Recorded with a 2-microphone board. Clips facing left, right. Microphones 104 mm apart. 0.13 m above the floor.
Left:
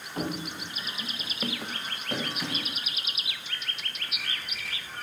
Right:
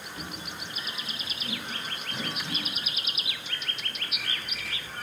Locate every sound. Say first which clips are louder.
0.2 s running footsteps: left 10 dB; 45° left (ahead or behind), 0.6 m; by 2.8 s 90° left, 4 m